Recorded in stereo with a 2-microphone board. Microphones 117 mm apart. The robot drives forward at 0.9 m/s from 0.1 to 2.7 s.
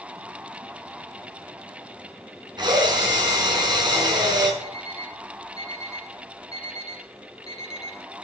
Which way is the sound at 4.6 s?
60° right (ahead or behind).